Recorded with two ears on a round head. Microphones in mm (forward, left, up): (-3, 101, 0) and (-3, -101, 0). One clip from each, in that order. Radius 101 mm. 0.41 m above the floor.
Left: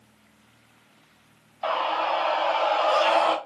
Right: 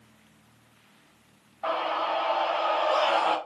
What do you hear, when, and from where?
1.6 s a scream: 75° left (ahead or behind), 2.5 m; by 3.4 s 45° left (ahead or behind), 1.5 m